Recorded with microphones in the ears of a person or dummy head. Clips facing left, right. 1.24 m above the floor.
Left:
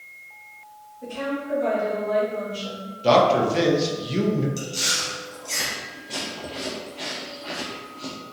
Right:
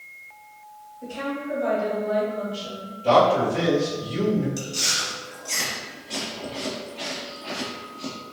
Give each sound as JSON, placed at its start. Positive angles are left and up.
{"t": 1.0, "sound": "a woman speaking", "side_deg": -10, "distance_m": 1.8}
{"t": 3.0, "sound": "a man speaking", "side_deg": 50, "distance_m": 0.9}
{"t": 4.6, "sound": "chewing", "side_deg": 0, "distance_m": 0.6}